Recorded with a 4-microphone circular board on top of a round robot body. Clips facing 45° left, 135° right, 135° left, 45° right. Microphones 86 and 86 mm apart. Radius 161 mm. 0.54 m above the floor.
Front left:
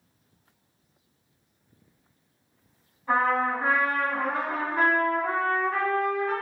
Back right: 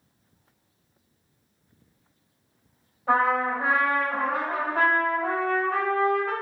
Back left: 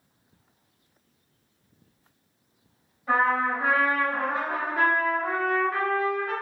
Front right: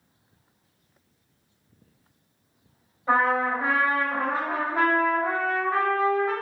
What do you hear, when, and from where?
3.1 s a trumpet: 105° right, 1.1 m